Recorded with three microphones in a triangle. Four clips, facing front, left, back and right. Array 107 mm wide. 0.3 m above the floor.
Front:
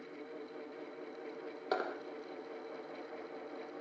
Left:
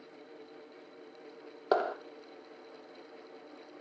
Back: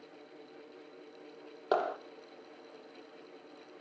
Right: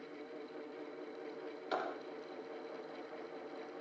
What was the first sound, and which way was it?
A clap, 110° left.